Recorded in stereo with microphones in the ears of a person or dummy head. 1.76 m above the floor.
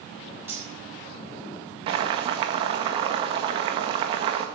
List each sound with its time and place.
0.5 s cutlery clinking: 15° right (ahead or behind), 7 m
1.9 s boiling: 30° right (ahead or behind), 1.5 m